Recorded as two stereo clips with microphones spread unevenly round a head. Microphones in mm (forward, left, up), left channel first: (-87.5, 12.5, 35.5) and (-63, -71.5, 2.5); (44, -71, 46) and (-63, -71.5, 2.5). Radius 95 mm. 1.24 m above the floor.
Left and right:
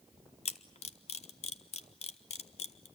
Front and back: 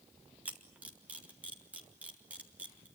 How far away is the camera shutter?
About 1.3 m.